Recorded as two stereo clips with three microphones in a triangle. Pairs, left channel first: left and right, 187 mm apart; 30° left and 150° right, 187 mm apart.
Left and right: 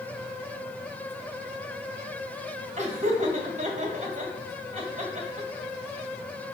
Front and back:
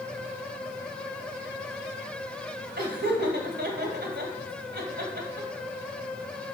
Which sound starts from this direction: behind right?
Laughter, at 2.8 s.